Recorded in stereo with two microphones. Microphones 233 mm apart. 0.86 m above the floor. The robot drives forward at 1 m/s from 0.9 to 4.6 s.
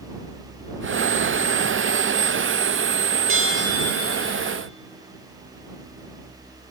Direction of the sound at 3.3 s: 60° right (ahead or behind).